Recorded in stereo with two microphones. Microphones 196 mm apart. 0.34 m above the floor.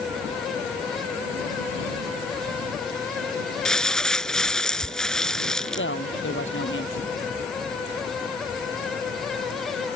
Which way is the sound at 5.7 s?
80° left.